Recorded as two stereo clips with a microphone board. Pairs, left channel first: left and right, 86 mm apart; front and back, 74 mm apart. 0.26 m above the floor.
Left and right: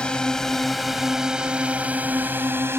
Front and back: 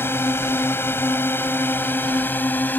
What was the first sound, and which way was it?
A drone, 20° left.